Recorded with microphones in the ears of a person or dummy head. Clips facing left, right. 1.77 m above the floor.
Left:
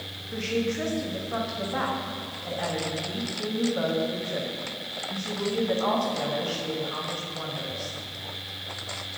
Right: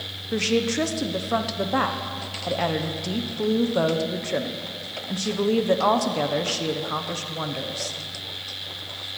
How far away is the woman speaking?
About 1.3 m.